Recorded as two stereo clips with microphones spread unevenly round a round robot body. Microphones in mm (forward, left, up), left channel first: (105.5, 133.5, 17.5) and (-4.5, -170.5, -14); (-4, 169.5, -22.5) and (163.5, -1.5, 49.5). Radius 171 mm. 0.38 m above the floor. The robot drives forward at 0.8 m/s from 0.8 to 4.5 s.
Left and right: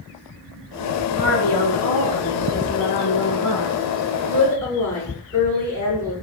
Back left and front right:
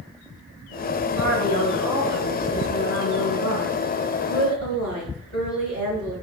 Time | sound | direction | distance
1.2 | a woman speaking | 110° left | 4.5 m